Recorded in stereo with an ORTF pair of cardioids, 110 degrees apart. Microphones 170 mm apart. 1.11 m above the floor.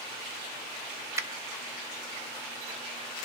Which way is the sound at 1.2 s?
15° right.